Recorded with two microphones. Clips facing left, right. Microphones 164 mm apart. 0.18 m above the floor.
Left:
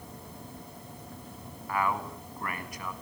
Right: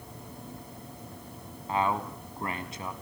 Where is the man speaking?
25° right (ahead or behind), 1.7 m.